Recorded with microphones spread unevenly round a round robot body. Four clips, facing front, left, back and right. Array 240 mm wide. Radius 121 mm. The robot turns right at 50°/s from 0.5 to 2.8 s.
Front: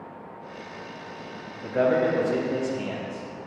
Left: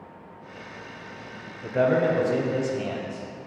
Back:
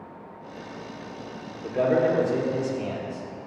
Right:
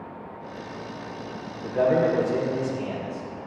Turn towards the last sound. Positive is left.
turn(degrees=95)